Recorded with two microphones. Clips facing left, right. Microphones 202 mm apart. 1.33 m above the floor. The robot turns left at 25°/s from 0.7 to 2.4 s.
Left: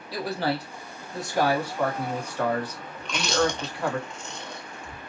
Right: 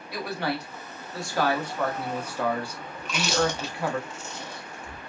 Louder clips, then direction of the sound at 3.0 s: Left 1 dB; 5° right (ahead or behind).